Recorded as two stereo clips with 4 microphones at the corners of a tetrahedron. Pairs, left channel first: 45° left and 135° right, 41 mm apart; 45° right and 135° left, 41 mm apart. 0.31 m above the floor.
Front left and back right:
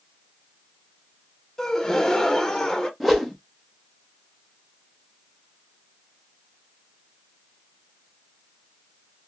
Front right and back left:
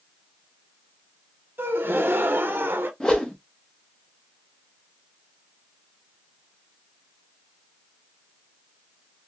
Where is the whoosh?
30° right, 0.7 m.